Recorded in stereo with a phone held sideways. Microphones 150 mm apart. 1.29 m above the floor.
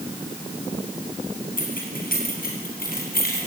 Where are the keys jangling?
70° left (ahead or behind), 7 m; by 3.5 s 90° left, 6.5 m.